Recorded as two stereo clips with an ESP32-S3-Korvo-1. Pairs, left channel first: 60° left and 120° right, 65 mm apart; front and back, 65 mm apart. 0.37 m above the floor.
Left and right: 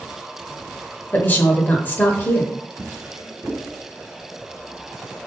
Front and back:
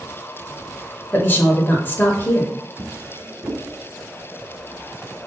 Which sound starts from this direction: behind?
A drawer, at 2.8 s.